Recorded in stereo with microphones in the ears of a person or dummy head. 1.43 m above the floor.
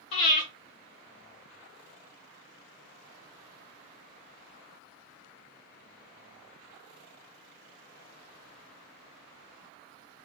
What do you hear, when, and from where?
0.1 s breathing: 30° left (ahead or behind), 1.3 m